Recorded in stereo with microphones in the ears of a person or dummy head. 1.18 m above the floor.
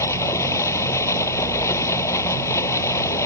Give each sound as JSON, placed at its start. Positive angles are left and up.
{"t": 0.0, "sound": "running water", "side_deg": 15}